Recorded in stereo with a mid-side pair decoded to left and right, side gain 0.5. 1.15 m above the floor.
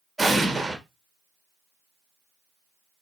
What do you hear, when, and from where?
0.2 s an explosion: 10° right, 1.3 m